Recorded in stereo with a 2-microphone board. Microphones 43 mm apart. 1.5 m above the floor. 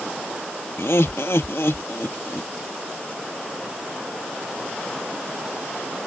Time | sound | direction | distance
0.8 | laughter | 80° left | ?